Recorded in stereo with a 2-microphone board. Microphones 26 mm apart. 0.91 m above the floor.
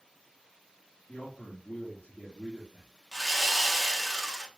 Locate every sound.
1.1 s a man speaking: 65° left (ahead or behind), 1.6 m
3.1 s sawing: centre (ahead or behind), 1.3 m